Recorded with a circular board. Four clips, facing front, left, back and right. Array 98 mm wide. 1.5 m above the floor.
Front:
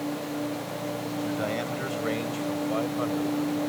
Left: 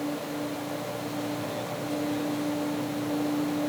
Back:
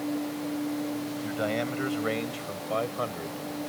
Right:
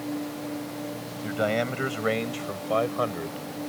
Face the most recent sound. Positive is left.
turn(degrees=-100)